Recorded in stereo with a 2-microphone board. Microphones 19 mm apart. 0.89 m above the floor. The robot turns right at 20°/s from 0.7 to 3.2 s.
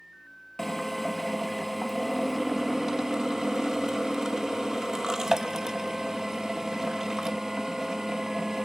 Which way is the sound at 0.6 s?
160° left.